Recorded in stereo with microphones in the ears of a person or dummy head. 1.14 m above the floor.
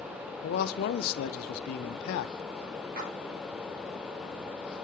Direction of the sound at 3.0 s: 55° right (ahead or behind).